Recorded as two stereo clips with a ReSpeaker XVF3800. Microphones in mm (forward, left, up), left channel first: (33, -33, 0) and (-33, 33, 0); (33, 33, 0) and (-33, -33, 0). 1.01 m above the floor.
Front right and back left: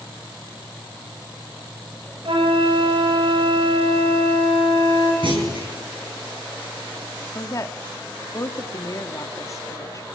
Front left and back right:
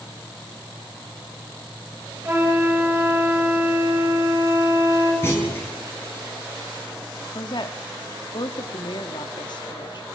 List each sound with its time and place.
2.2 s a flute: 160° left, 6 m
5.2 s a clunk: 110° left, 8.5 m
7.3 s a woman speaking: 10° left, 2.5 m